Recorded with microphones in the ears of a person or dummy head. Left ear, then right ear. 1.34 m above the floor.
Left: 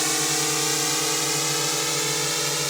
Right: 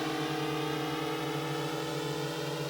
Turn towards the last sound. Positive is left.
turn(degrees=70)  # may be behind; listen again after turning